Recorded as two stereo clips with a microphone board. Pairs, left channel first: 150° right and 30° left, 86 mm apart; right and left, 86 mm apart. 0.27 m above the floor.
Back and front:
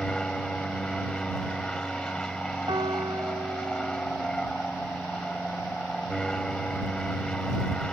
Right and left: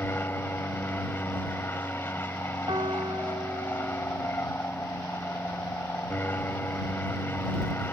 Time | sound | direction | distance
0.0 | an aircraft | 80° right | ?
2.7 | a piano | 60° left | ?